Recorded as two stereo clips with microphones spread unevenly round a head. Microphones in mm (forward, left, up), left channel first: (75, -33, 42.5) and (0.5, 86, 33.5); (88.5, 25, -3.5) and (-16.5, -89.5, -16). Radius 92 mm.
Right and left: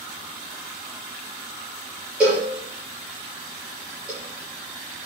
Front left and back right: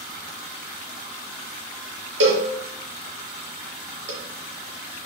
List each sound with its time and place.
2.2 s a cowbell: 150° right, 4.5 m